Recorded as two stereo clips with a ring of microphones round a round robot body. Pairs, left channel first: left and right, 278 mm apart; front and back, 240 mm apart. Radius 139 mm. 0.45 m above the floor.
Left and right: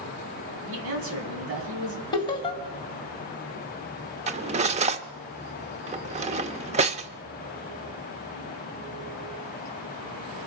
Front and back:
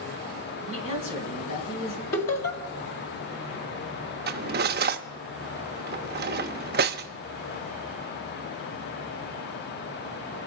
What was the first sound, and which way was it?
A man speaking, 45° right.